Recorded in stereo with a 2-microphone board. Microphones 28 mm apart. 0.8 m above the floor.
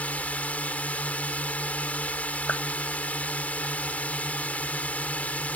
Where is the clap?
80° left.